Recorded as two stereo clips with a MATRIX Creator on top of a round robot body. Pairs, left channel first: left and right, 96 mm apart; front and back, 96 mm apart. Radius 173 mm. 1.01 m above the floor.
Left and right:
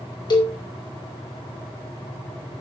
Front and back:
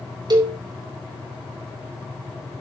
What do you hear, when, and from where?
0.3 s a cowbell: 135° left, 3 m